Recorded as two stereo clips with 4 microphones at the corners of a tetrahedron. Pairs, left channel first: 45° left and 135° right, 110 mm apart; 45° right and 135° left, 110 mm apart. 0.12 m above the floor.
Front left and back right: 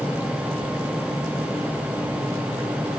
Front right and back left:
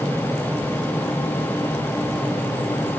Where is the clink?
I don't hear a clink.